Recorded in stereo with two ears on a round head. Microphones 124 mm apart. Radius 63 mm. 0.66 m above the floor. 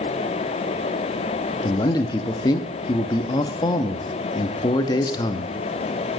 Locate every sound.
1.6 s a man speaking: 30° left (ahead or behind), 0.8 m